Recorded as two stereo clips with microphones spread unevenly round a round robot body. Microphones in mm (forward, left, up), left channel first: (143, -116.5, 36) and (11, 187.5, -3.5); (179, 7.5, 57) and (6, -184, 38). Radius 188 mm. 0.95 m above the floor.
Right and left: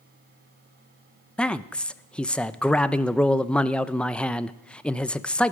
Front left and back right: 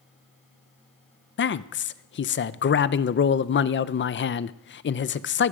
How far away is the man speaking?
About 0.7 m.